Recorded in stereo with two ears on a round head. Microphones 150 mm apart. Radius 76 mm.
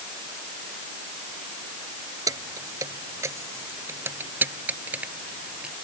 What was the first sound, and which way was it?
Keys jangling, 20° right (ahead or behind).